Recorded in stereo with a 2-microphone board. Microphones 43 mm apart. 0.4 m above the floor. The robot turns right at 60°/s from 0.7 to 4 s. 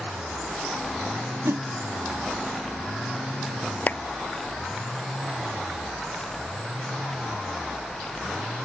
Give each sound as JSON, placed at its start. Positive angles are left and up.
{"t": 1.4, "sound": "a whoosh", "side_deg": -75}
{"t": 3.9, "sound": "a clap", "side_deg": 45}